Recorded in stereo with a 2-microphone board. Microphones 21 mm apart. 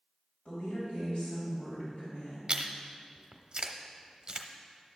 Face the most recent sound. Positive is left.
turn(degrees=-40)  # may be behind; listen again after turning